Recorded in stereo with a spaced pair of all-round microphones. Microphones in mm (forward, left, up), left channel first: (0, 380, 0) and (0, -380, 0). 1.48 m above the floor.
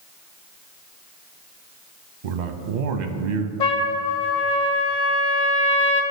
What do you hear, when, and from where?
2.2 s a man speaking: 70° right (ahead or behind), 0.6 m
3.6 s a trumpet: 70° left (ahead or behind), 0.8 m